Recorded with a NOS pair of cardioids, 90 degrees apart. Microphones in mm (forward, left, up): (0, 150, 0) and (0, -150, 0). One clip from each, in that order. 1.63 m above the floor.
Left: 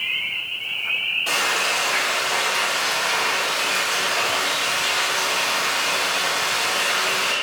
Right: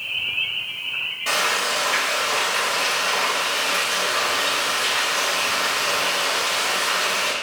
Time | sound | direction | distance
1.3 | frying | 25° right | 2.0 m